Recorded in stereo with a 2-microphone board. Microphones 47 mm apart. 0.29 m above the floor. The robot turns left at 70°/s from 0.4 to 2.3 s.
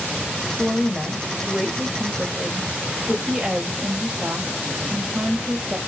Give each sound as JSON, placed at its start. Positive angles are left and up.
{"t": 0.6, "sound": "a woman speaking", "side_deg": 25, "distance_m": 1.0}